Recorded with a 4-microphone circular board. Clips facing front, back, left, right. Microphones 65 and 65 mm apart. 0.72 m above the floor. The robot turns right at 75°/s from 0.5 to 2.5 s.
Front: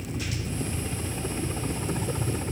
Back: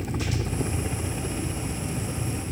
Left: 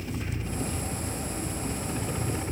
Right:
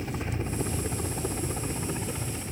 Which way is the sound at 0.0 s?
150° right.